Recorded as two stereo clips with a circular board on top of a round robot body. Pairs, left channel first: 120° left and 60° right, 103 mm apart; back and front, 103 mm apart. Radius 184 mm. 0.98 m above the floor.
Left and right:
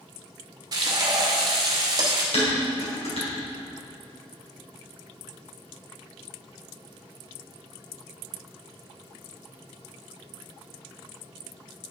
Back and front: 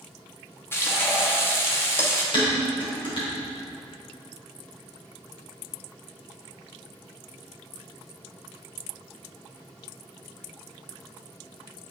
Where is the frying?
110° right, 0.7 m.